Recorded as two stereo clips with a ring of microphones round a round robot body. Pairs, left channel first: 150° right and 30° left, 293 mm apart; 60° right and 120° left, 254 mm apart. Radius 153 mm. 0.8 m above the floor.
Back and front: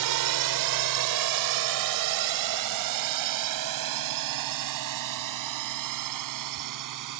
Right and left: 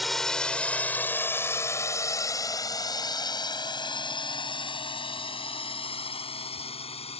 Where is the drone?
30° left; by 7.2 s 5° left.